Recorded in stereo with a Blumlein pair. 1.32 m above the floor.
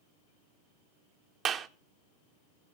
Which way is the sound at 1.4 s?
25° right.